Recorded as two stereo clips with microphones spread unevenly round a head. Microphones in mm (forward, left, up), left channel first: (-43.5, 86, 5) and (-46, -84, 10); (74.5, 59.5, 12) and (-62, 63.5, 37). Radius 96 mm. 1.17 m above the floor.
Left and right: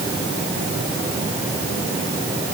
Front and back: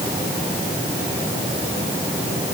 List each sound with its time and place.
Only background noise.